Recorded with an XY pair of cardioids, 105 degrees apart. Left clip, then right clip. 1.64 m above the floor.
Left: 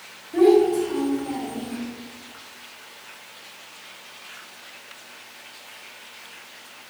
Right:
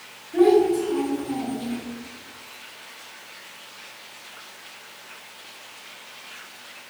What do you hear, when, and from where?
0.3 s a child speaking: 35° left, 2.0 m; by 1.8 s 30° left, 1.2 m